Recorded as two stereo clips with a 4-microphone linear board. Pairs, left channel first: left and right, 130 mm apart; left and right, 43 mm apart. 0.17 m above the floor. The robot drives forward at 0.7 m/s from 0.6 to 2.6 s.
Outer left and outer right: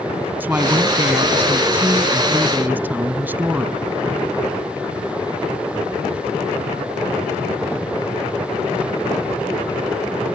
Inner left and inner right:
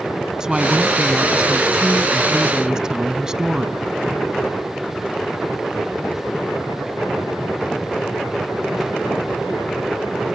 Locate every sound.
0.4 s a woman speaking: 15° right (ahead or behind)